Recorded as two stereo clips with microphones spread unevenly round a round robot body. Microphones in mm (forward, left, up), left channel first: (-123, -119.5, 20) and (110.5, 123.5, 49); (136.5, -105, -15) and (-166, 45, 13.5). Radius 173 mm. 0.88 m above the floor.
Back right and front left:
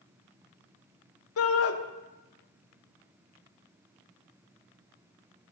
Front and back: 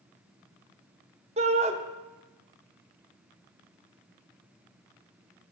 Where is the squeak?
No squeak in this recording.